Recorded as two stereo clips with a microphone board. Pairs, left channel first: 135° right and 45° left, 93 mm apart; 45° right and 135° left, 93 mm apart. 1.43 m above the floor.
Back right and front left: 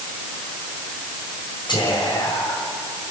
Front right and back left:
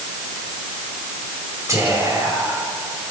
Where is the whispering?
170° right, 7.5 m.